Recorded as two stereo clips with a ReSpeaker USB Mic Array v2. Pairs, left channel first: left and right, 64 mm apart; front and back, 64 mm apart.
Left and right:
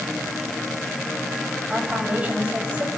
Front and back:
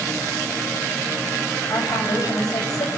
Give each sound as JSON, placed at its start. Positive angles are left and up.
{"t": 1.7, "sound": "a woman speaking", "azimuth_deg": -25, "distance_m": 7.0}